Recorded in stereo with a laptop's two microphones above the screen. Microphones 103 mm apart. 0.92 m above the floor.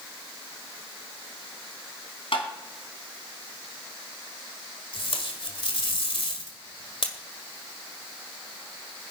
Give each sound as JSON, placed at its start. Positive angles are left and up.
{"t": 2.3, "sound": "tapping", "side_deg": 65, "distance_m": 3.0}
{"t": 4.9, "sound": "tape being pulled", "side_deg": 65, "distance_m": 2.0}